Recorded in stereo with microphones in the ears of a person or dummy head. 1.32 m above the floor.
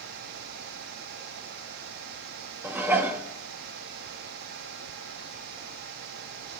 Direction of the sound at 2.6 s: 10° right (ahead or behind).